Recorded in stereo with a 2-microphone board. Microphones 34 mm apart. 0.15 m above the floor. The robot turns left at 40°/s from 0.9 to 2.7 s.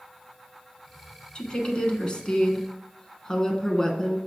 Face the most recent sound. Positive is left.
turn(degrees=35)